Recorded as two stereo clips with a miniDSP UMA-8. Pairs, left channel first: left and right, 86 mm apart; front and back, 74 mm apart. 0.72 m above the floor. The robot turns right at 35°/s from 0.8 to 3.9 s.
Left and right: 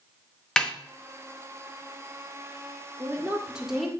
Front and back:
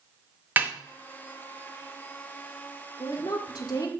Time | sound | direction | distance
0.6 | a snare drum | 165° left | 0.8 m
3.0 | a woman speaking | 30° right | 1.4 m